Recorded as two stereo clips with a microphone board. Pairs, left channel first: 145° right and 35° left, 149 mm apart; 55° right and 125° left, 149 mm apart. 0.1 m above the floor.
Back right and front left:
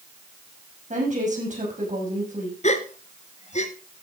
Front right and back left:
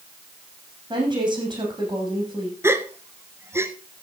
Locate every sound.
0.9 s a woman speaking: 65° left, 6 m
2.6 s a gasp: 165° right, 1.0 m